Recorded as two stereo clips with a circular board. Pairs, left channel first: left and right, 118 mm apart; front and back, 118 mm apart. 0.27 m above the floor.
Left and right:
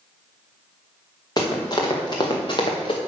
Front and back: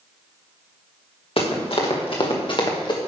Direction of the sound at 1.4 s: 35° left.